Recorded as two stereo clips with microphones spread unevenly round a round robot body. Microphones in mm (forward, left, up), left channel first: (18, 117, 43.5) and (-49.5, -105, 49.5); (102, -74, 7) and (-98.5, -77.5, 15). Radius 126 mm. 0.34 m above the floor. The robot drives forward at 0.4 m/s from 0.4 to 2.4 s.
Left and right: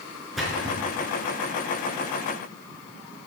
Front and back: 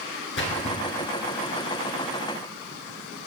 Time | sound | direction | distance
0.4 | a splash | 15° right | 2.5 m